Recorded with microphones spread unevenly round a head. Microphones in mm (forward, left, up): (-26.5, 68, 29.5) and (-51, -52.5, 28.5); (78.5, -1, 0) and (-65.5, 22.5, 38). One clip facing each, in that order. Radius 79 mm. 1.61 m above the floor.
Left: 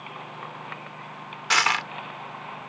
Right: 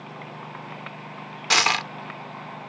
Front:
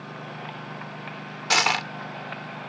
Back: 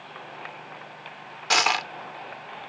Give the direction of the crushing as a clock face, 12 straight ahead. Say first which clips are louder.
Right 1 dB, even; 4 o'clock.